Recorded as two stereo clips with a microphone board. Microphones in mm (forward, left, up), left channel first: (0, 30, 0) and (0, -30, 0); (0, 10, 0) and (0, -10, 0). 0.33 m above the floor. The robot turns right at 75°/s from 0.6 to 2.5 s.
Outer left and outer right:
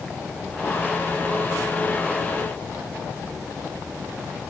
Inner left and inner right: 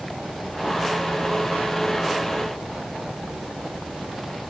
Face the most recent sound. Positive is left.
No sound to turn to.